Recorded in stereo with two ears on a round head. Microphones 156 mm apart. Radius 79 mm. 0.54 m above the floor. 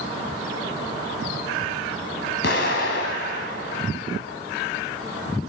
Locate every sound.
2.4 s an explosion: 75° left (ahead or behind), 2 m